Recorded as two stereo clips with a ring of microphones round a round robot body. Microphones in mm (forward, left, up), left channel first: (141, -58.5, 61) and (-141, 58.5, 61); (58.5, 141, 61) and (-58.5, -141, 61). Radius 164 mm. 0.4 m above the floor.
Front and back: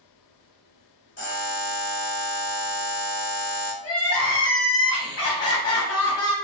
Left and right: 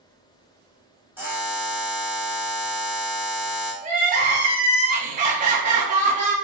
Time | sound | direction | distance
1.2 | a buzzer | 30° right | 1.4 m
3.8 | crying | 50° right | 1.0 m